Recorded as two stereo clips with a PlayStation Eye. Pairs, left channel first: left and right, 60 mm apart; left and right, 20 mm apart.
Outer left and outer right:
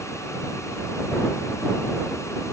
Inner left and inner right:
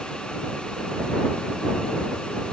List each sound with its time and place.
Only background noise.